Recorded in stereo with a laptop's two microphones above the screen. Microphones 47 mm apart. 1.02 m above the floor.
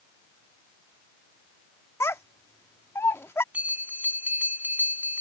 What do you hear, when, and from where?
2.0 s a child speaking: 80° left
3.5 s a bell: 35° right (ahead or behind)